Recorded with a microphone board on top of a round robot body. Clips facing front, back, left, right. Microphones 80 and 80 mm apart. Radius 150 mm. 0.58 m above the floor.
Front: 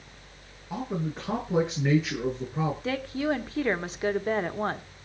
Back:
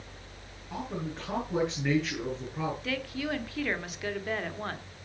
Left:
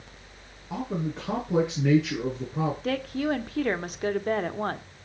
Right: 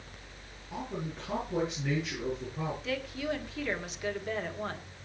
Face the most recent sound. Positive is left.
turn(degrees=55)